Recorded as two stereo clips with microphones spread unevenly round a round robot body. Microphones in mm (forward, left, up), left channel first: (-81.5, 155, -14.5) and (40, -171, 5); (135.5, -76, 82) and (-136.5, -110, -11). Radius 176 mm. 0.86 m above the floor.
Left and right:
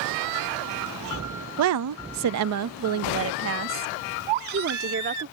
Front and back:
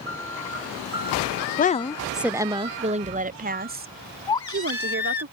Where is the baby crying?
65° right.